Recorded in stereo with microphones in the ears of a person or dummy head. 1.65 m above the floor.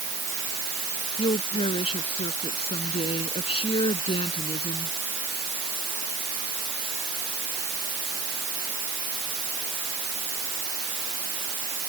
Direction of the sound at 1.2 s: 35° left (ahead or behind).